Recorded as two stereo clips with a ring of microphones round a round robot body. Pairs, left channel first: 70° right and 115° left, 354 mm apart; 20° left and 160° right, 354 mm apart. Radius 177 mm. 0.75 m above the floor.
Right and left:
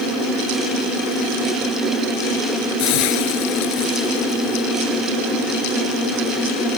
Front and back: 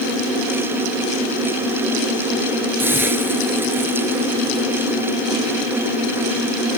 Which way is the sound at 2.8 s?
75° right.